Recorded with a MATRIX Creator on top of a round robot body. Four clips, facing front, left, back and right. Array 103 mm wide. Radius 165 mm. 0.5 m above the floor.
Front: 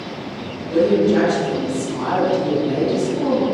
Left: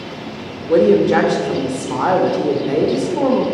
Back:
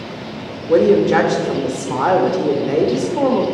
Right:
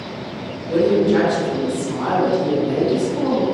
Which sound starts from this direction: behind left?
A woman speaking, at 0.7 s.